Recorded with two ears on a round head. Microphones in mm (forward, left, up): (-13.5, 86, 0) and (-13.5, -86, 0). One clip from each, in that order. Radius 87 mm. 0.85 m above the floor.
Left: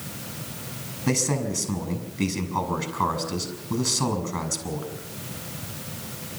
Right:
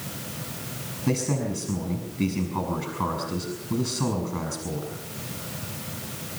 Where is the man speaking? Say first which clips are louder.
Left 2 dB; 30° left (ahead or behind), 5.5 m.